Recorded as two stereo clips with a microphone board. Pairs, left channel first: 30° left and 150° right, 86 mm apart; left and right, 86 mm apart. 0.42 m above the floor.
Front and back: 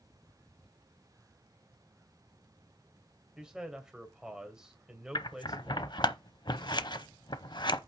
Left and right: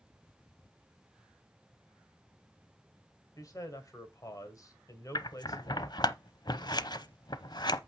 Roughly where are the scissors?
Ahead left.